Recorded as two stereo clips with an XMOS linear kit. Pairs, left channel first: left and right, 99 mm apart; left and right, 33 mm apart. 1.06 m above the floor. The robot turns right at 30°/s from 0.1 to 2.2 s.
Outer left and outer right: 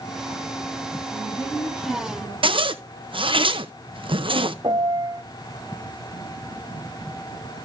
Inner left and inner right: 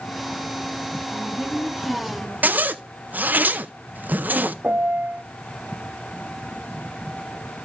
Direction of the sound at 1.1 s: 5° right.